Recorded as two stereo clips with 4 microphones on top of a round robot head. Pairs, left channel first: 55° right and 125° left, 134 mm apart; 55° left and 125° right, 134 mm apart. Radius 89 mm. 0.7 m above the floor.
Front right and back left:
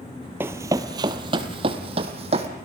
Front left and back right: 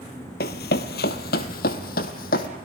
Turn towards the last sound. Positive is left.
turn(degrees=80)